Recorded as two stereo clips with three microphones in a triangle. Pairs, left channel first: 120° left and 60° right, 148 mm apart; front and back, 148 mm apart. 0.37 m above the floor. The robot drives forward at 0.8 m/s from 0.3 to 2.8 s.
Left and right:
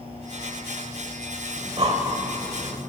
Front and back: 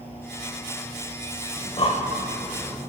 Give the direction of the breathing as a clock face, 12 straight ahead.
1 o'clock.